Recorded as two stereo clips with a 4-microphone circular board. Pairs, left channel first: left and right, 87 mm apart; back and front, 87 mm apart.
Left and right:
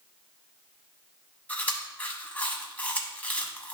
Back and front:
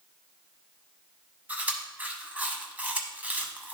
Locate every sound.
1.5 s chewing: 45° left, 1.0 m